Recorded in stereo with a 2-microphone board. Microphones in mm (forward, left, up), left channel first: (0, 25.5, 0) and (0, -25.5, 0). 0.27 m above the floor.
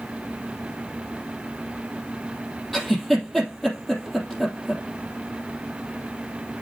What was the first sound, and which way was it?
A giggle, centre (ahead or behind).